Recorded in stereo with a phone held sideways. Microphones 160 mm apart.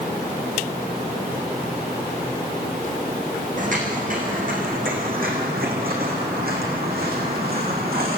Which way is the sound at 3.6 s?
55° right (ahead or behind).